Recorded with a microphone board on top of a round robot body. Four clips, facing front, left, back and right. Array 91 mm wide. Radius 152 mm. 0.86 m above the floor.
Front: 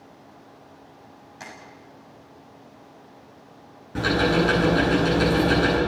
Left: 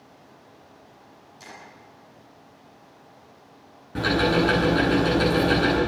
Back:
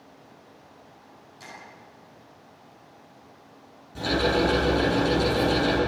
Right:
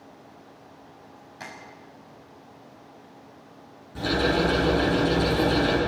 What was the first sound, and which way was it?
Tapping, 50° right.